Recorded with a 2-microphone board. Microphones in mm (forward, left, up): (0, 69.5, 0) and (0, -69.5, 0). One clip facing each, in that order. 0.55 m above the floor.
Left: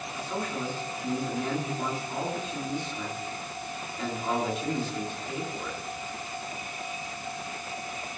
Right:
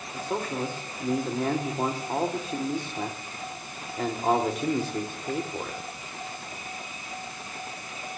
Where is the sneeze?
No sneeze in this recording.